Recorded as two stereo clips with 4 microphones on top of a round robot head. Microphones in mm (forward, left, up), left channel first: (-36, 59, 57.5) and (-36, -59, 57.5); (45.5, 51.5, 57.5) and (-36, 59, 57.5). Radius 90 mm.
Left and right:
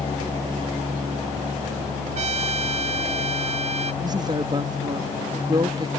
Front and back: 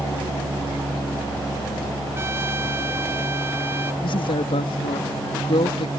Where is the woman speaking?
30° right.